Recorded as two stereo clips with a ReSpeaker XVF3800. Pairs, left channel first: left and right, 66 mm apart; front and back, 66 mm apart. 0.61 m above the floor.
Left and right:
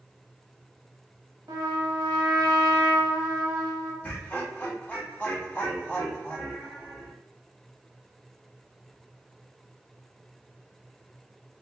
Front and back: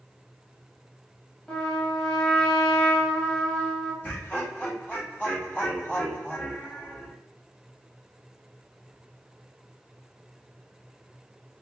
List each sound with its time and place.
1.5 s a trumpet: 75° right, 0.7 m
4.0 s laughter: 40° left, 1.1 m